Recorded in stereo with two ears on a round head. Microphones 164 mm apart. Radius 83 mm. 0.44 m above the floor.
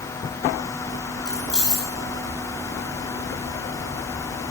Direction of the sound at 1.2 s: 5° right (ahead or behind).